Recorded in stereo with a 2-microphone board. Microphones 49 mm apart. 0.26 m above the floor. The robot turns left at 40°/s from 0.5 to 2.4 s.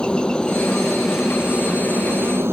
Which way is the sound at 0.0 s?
20° left.